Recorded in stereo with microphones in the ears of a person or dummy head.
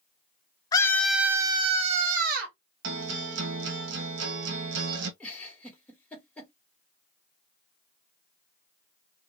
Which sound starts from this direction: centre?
A giggle, at 5.2 s.